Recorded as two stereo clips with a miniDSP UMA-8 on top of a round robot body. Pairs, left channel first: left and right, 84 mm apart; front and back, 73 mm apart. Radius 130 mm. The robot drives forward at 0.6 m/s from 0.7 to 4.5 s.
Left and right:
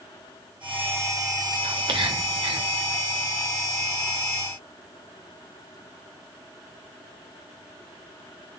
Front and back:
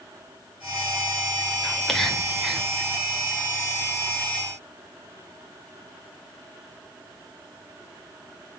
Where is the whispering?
80° right, 3 m; by 2.7 s 95° right, 3 m.